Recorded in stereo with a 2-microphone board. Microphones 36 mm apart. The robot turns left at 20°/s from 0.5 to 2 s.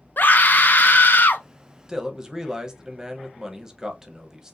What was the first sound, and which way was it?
A scream, 65° left (ahead or behind).